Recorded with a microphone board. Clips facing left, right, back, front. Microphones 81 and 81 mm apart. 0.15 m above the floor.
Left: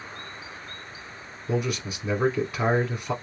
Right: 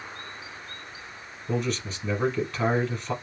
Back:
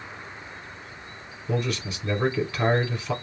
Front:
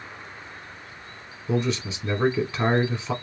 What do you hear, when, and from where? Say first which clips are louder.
1.5 s a man speaking: left 1 dB, front 3 dB; 25° left, 1.0 m